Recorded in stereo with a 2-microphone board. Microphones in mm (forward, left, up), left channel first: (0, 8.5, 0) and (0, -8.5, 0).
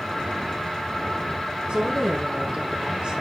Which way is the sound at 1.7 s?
75° right (ahead or behind).